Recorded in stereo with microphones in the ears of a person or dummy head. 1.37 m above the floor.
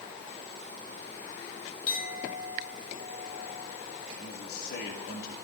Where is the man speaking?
60° left (ahead or behind), 2 m.